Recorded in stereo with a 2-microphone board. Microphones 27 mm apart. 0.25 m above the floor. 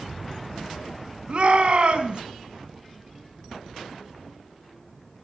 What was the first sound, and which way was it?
A shout, 45° right (ahead or behind).